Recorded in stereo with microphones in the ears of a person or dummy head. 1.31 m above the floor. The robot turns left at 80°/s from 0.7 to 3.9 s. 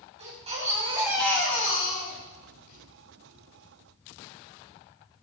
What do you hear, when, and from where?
0.2 s a baby crying: 140° right, 6 m; by 2.8 s 50° left, 6 m